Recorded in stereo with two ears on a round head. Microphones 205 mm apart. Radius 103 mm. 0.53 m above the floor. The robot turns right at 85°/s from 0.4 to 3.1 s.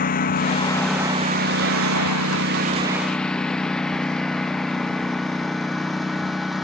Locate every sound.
0.0 s a lawn mower: 40° left (ahead or behind); by 6.7 s centre (ahead or behind)